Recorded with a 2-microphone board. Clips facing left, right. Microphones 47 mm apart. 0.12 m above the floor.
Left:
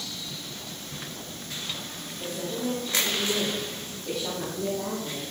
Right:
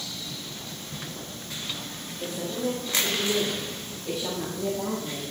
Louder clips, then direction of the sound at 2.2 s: Right 1 dB; centre (ahead or behind).